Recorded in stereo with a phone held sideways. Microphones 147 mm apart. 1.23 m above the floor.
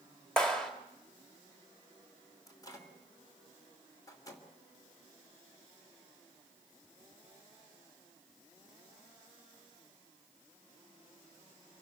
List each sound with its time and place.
0.4 s a clap: 5° left (ahead or behind), 2.5 m
2.5 s a microwave: 25° left (ahead or behind), 3 m